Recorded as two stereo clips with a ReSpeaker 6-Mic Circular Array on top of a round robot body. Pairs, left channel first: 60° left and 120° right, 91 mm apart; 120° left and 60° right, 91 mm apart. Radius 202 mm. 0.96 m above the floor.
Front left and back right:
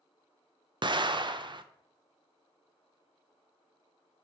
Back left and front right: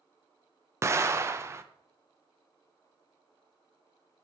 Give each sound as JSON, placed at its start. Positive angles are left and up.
{"t": 0.8, "sound": "an explosion", "azimuth_deg": -115, "distance_m": 0.7}